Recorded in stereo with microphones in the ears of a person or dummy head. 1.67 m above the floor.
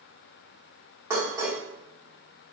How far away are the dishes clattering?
About 1.3 m.